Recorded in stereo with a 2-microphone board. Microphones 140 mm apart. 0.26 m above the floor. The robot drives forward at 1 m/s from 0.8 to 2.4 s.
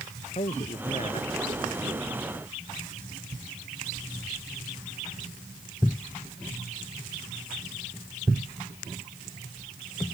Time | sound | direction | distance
0.3 | a man speaking | 50° left (ahead or behind) | ?